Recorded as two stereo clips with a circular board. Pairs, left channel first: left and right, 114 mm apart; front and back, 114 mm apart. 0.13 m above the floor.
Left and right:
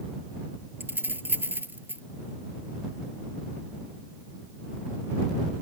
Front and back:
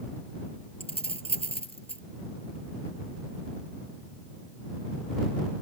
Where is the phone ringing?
I don't hear a phone ringing.